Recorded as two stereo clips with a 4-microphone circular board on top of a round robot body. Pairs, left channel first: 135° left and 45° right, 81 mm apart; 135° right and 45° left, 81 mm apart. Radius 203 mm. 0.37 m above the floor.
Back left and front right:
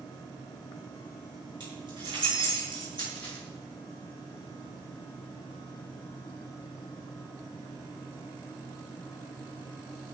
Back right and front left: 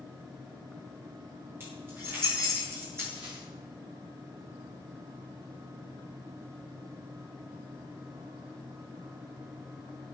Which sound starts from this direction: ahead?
Keys jangling, at 1.6 s.